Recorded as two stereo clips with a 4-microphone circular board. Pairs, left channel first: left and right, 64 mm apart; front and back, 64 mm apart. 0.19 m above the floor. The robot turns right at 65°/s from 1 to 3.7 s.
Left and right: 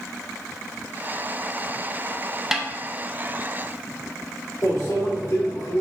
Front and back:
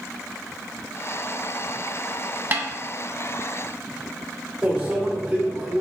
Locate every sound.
2.5 s a snare drum: 170° right, 0.5 m; by 2.6 s 160° right, 0.5 m
4.6 s a microwave: 110° left, 1.8 m